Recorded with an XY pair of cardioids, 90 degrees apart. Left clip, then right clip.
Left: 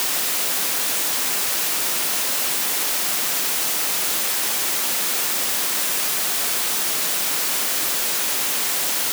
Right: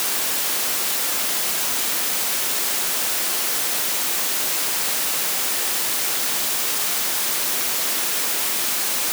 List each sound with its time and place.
Only background noise.